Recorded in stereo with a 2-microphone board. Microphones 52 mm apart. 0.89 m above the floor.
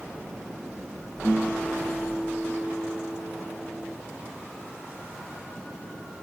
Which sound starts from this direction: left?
A guitar, at 1.2 s.